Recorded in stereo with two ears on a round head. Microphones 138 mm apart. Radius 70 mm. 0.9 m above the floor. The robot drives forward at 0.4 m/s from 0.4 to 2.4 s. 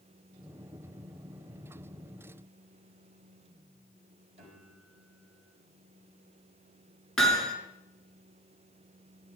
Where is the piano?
50° right (ahead or behind), 4 m.